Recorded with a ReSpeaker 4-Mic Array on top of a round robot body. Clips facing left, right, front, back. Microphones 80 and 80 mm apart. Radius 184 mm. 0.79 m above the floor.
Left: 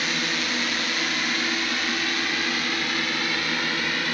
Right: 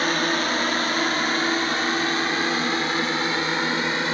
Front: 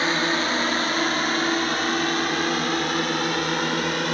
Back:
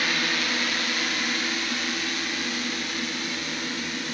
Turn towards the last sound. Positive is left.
turn(degrees=-30)